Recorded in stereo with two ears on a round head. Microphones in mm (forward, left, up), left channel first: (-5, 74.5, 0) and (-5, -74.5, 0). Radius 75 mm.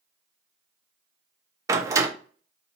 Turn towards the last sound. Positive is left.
turn(degrees=-15)  # may be behind; listen again after turning